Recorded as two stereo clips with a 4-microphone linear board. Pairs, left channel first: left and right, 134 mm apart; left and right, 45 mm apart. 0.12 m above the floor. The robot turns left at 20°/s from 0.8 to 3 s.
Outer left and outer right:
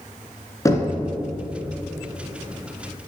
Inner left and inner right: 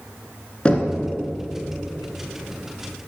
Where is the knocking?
25° left (ahead or behind), 1.4 m.